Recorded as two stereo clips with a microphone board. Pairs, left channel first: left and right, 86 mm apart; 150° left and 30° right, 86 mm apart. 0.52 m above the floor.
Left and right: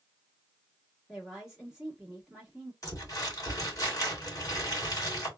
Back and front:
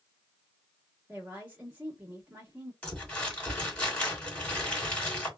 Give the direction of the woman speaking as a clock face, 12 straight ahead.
1 o'clock.